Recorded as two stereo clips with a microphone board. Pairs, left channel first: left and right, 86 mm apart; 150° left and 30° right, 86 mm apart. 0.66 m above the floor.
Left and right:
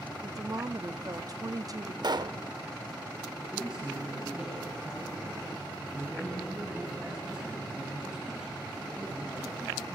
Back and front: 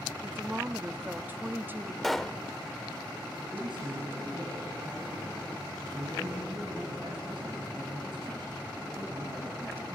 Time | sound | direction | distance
0.2 | a woman speaking | 85° right | 0.7 m
2.0 | a pop | 120° right | 0.6 m
3.4 | a man speaking | 10° right | 6 m